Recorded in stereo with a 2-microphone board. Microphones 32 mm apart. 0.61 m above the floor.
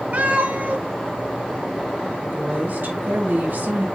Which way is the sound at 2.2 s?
75° right (ahead or behind).